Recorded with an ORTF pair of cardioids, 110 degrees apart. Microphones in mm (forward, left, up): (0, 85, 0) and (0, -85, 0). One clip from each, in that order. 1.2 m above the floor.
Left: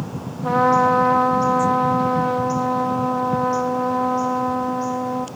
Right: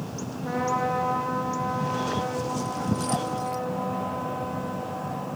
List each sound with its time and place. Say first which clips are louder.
0.4 s a trumpet: left 10 dB; 55° left, 2.5 m